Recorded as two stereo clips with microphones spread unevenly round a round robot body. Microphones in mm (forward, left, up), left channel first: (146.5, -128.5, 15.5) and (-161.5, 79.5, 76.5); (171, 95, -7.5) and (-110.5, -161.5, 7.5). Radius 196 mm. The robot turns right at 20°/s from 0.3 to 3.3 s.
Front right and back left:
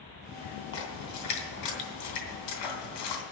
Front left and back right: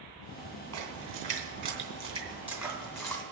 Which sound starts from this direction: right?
A splash, at 0.7 s.